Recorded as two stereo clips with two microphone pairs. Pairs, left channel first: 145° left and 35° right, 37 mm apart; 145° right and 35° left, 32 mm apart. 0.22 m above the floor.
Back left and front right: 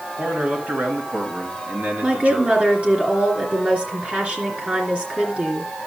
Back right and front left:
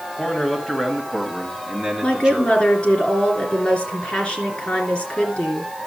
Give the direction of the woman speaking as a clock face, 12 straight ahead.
3 o'clock.